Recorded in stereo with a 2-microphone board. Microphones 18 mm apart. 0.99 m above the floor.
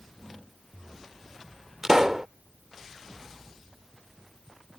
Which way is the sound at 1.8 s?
25° right (ahead or behind).